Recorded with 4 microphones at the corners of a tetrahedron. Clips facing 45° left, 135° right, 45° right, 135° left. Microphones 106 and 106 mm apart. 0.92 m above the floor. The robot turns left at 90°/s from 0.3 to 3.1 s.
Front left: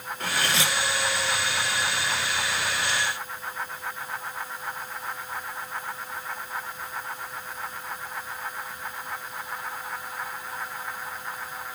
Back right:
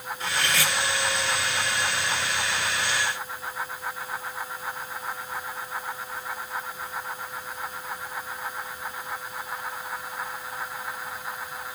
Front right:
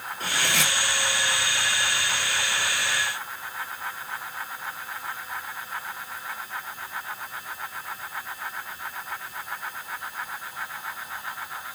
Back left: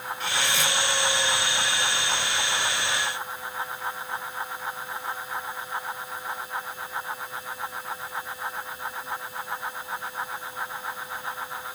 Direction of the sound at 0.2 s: 5° left.